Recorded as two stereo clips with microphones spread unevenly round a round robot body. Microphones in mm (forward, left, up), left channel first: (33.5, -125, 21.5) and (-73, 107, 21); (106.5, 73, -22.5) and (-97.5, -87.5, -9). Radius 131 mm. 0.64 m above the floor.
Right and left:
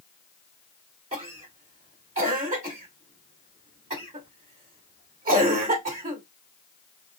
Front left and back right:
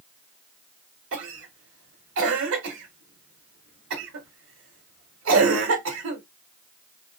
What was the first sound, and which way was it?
A cough, straight behind.